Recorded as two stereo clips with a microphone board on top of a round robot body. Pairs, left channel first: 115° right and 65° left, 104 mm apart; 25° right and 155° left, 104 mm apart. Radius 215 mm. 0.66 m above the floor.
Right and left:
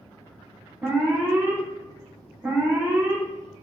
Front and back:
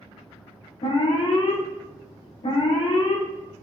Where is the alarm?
Straight ahead, 0.8 m.